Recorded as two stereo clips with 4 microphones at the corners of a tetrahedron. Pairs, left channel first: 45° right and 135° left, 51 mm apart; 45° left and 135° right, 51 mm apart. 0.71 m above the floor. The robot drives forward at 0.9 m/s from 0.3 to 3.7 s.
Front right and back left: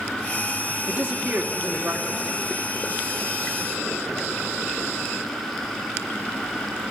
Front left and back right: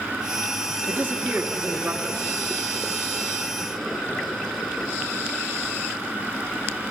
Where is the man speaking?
175° left, 1.7 m; by 2.2 s straight behind, 3 m.